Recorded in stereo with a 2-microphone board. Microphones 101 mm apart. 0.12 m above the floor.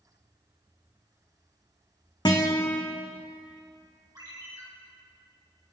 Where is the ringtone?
45° right (ahead or behind), 2 m.